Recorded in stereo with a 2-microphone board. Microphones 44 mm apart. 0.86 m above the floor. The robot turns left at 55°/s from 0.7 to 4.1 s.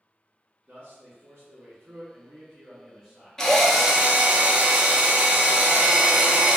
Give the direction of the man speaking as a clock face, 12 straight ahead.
1 o'clock.